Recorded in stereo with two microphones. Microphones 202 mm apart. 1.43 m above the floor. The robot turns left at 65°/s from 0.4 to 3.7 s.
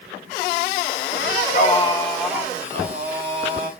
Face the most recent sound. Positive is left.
turn(degrees=-95)